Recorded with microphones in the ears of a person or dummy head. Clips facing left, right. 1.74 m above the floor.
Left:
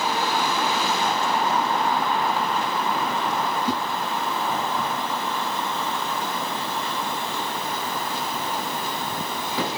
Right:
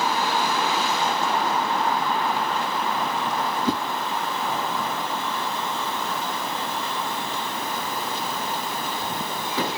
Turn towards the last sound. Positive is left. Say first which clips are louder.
# right 4 dB
turn(degrees=-55)  # may be behind; listen again after turning